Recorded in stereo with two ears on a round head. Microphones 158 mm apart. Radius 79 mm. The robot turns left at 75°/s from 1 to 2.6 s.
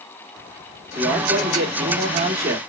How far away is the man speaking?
About 1.0 m.